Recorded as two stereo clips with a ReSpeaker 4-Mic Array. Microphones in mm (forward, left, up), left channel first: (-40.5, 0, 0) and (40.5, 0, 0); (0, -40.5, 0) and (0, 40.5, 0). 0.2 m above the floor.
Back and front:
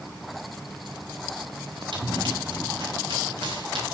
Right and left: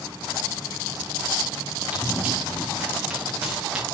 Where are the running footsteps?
10° left, 6 m; by 3.8 s straight ahead, 5.5 m.